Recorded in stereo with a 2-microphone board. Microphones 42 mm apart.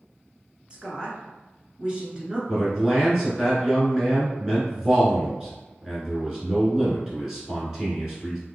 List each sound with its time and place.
0.7 s a woman speaking: 20° right (ahead or behind), 1.2 m
2.5 s a man speaking: 15° right (ahead or behind), 1.6 m